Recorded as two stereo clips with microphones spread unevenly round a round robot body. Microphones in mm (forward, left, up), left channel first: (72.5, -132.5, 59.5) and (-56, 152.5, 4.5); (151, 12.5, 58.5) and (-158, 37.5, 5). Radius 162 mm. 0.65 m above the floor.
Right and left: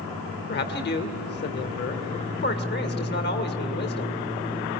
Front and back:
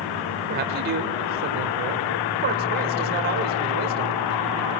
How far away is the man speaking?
About 2 m.